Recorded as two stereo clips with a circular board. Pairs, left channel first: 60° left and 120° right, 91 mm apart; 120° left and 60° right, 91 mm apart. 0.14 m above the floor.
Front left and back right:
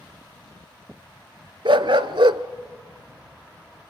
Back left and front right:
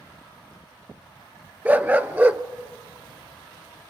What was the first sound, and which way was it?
A dog barking, 130° right.